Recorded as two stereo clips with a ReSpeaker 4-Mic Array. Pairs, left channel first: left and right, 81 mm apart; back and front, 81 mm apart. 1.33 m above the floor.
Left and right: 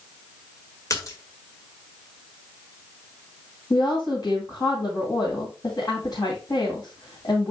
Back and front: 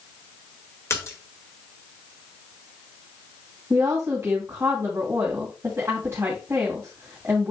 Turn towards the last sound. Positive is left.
turn(degrees=60)